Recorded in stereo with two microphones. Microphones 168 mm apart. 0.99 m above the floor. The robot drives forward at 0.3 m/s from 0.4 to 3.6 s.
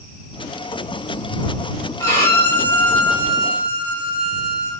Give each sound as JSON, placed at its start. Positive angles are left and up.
{"t": 2.0, "sound": "a violin", "side_deg": 15, "distance_m": 0.7}